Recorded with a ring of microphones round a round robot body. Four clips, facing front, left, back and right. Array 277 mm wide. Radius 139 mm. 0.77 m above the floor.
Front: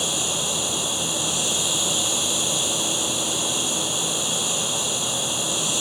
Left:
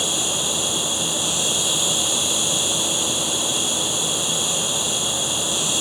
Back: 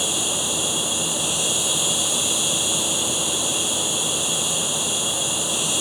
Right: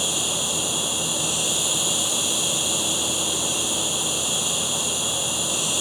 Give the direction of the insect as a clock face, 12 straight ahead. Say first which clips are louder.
Left 2 dB, back 1 dB; 6 o'clock.